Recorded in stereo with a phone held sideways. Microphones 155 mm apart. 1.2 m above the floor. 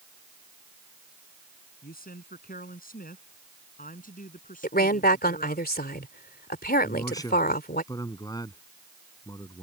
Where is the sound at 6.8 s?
25° left (ahead or behind).